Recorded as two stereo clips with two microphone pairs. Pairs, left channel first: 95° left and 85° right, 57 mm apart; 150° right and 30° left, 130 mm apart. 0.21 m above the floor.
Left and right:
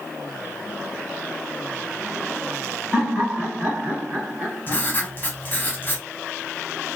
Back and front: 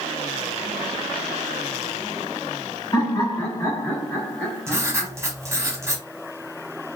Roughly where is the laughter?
Behind right.